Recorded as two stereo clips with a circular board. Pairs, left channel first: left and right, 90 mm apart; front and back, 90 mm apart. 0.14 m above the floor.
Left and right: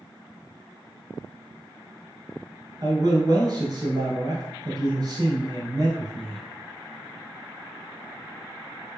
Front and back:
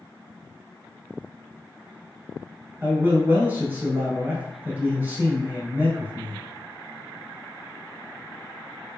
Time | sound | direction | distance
2.8 | a man speaking | 120° right | 1.7 m